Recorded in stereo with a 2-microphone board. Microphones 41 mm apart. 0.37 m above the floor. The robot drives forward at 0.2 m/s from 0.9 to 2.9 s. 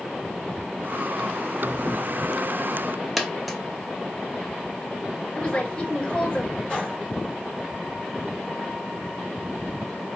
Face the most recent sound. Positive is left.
turn(degrees=25)  # may be behind; listen again after turning